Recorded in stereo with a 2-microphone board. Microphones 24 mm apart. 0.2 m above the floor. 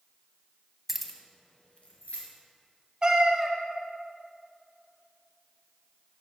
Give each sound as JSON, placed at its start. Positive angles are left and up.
{"t": 0.9, "sound": "keys jangling", "side_deg": -10, "distance_m": 0.6}
{"t": 3.0, "sound": "a cat meowing", "side_deg": -30, "distance_m": 0.8}